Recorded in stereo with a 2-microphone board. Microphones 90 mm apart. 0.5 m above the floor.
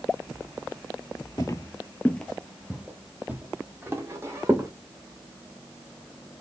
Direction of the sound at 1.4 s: 40° left (ahead or behind).